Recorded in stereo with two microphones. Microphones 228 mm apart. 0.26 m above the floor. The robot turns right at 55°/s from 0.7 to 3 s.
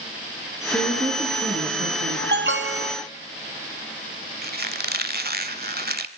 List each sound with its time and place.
0.7 s a woman speaking: 170° left, 3.5 m; by 2.2 s 110° right, 3.5 m
2.3 s an alarm: 120° right, 1.2 m; by 3.0 s 85° right, 1.2 m
4.4 s a squeak: 45° right (ahead or behind), 1.1 m